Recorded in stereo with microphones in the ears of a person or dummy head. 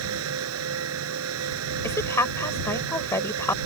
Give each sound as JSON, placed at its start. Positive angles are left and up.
{"t": 0.0, "sound": "a fan", "side_deg": -85}
{"t": 1.8, "sound": "a woman speaking", "side_deg": 15}